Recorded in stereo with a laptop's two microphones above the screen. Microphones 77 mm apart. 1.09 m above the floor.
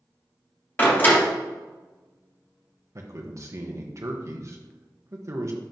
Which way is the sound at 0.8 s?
25° left (ahead or behind).